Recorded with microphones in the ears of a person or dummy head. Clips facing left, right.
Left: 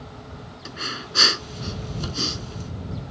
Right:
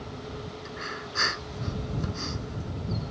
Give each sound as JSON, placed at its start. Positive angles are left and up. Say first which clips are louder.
{"t": 0.7, "sound": "breathing", "louder": "left 2 dB", "side_deg": 50}